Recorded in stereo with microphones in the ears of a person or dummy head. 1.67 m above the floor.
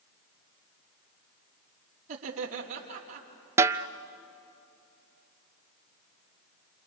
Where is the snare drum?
20° right (ahead or behind), 0.5 m.